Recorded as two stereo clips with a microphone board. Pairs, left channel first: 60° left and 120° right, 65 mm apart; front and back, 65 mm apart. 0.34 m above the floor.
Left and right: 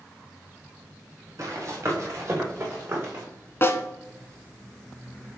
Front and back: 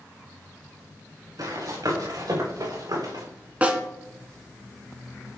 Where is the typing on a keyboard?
No typing on a keyboard in this recording.